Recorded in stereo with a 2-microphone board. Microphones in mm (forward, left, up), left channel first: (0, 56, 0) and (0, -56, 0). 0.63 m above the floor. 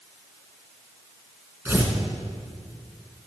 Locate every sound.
1.6 s tearing paper: 15° right (ahead or behind), 1.8 m